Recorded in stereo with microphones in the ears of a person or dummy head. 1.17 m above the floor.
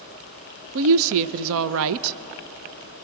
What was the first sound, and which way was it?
A woman speaking, 70° right (ahead or behind).